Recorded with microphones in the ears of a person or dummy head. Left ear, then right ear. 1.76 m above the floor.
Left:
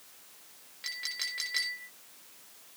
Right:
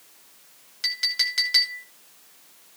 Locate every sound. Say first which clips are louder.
0.8 s a clink: right 11 dB; 80° right, 4.5 m